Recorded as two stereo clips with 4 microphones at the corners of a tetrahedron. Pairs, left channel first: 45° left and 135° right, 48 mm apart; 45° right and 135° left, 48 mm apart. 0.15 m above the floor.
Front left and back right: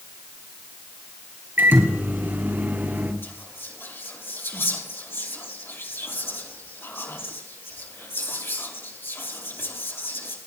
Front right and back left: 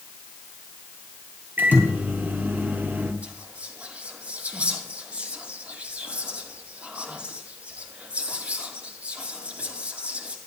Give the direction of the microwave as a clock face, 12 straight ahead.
6 o'clock.